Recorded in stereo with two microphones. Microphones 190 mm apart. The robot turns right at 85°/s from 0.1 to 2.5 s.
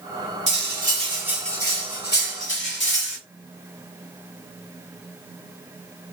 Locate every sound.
0.5 s cutlery clinking: 80° right, 1.2 m; by 3.2 s 95° left, 1.2 m